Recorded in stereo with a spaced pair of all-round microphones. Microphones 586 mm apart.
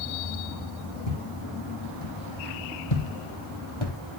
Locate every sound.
1.1 s footsteps: 70° left (ahead or behind), 4 m; by 4.0 s 50° left (ahead or behind), 2 m